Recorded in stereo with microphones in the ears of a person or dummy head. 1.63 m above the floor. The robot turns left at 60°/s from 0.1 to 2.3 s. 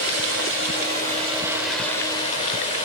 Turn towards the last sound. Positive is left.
turn(degrees=145)